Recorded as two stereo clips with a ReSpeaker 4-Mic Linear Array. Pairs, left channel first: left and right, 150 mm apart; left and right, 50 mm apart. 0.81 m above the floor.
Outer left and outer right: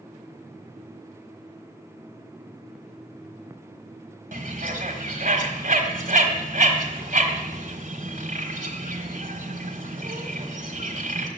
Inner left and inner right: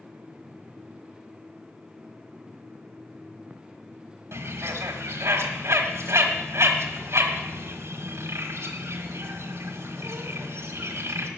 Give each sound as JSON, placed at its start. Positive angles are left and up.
{"t": 4.3, "sound": "a bird", "side_deg": -60, "distance_m": 1.5}